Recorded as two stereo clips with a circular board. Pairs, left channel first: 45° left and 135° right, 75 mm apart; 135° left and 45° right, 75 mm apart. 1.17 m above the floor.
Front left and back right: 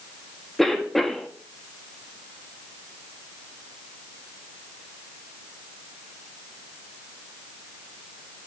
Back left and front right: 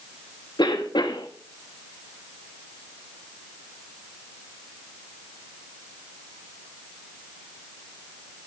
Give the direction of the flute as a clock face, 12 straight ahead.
I don't hear a flute.